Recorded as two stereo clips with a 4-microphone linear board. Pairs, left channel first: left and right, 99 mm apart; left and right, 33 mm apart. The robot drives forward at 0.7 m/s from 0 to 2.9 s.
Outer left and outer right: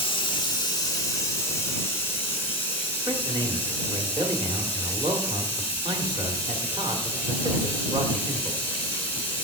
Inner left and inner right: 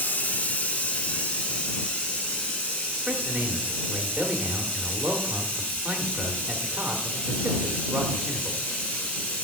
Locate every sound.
0.0 s running water: 60° left (ahead or behind), 0.9 m; by 9.4 s 20° left (ahead or behind), 2.5 m
3.1 s a man speaking: 60° right (ahead or behind), 1.2 m